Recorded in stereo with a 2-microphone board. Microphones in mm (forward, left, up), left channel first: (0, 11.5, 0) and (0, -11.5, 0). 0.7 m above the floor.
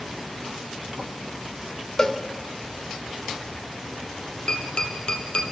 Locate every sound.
2.0 s a cowbell: 30° left (ahead or behind), 1.7 m
4.5 s tapping: 45° left (ahead or behind), 3.5 m